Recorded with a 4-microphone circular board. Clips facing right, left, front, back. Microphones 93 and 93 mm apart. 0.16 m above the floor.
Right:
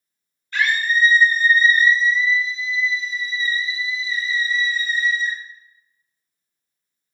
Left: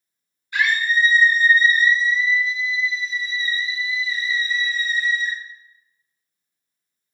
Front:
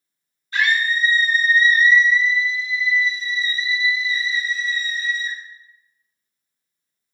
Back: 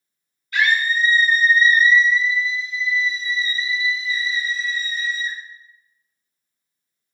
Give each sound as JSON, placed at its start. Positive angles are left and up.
{"t": 0.5, "sound": "a scream", "azimuth_deg": 25, "distance_m": 1.8}